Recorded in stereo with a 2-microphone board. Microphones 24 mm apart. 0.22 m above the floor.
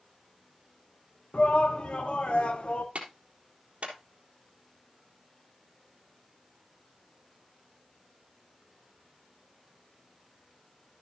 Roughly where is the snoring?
I don't hear snoring.